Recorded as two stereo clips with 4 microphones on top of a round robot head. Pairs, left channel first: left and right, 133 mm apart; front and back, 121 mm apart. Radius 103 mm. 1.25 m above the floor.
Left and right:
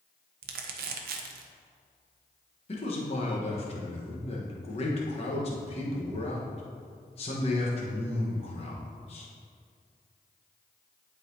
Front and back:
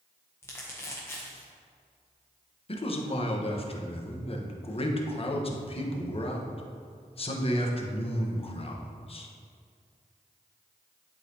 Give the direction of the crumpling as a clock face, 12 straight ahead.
3 o'clock.